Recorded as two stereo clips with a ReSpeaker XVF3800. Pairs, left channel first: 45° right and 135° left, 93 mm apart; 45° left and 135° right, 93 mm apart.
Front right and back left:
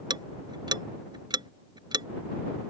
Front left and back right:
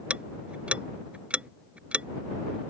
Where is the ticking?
150° left.